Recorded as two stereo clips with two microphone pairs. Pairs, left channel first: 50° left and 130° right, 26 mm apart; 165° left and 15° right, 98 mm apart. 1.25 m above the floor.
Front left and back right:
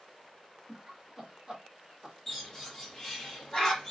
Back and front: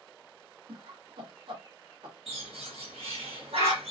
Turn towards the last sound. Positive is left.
turn(degrees=-10)